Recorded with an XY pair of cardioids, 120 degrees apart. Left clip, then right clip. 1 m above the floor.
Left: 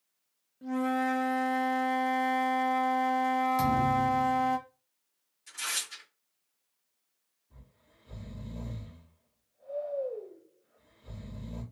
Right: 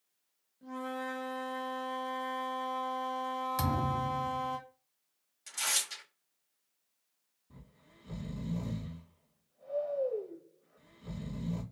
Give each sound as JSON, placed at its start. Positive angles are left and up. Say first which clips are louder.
{"t": 0.6, "sound": "a flute", "louder": "left 8 dB", "azimuth_deg": 45, "distance_m": 0.9}
{"t": 3.6, "sound": "a thud", "louder": "left 7 dB", "azimuth_deg": -35, "distance_m": 1.2}
{"t": 5.5, "sound": "tearing paper", "louder": "right 1 dB", "azimuth_deg": -65, "distance_m": 2.0}
{"t": 7.5, "sound": "snoring", "louder": "right 3 dB", "azimuth_deg": -70, "distance_m": 2.0}